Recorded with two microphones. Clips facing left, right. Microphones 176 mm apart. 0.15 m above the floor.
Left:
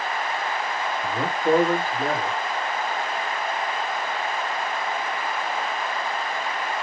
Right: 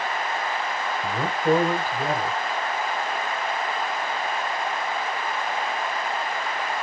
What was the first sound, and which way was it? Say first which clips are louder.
A man speaking: even; 10° right (ahead or behind).